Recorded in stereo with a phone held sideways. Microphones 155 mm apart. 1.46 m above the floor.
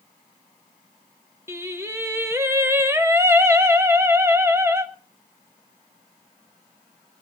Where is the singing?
15° right (ahead or behind), 0.9 m.